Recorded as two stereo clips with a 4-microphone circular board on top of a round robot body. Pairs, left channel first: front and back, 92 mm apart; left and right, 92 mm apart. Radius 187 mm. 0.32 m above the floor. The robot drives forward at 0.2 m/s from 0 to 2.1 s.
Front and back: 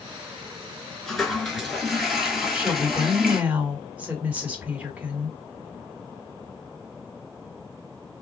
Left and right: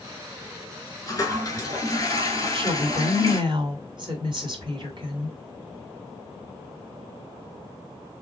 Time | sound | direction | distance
1.1 | a toilet flushing | 85° left | 1.6 m
2.4 | a woman speaking | 105° right | 2.5 m